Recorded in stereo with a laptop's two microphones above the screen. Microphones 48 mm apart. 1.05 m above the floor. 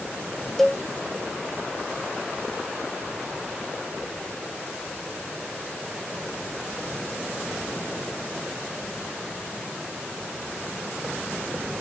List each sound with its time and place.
0.6 s a cowbell: 5° left (ahead or behind)